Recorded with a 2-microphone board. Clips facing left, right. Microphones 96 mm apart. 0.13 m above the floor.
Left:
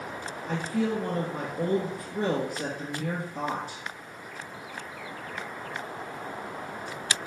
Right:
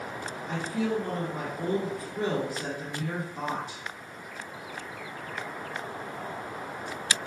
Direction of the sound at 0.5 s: 50° left (ahead or behind).